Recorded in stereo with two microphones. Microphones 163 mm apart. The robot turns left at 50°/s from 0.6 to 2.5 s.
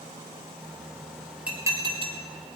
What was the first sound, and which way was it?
Dishes clattering, 10° right (ahead or behind).